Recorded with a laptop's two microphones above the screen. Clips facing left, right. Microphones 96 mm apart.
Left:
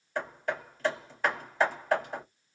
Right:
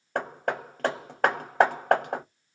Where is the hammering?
65° right (ahead or behind), 0.9 m.